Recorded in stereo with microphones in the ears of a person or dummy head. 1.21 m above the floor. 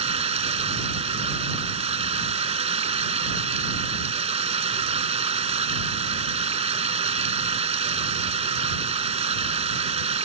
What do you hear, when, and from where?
0.0 s running water: 35° right (ahead or behind)